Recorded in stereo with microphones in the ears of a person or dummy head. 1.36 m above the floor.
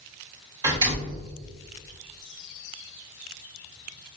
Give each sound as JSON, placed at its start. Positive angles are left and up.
{"t": 0.6, "sound": "a door slam", "side_deg": -25, "distance_m": 1.3}